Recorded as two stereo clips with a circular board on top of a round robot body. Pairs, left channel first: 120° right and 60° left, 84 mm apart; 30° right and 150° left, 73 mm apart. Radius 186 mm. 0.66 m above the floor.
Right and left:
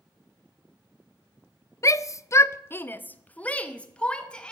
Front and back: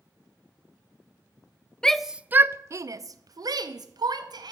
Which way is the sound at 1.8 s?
100° right.